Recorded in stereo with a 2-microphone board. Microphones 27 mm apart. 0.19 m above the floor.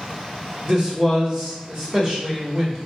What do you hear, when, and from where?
0.7 s a man speaking: 25° right (ahead or behind), 1.4 m